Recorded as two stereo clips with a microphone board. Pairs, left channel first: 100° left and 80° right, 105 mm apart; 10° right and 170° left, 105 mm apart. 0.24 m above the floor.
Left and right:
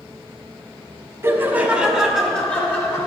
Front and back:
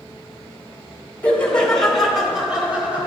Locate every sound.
1.2 s laughter: 65° right, 1.3 m; by 3.1 s 110° left, 1.4 m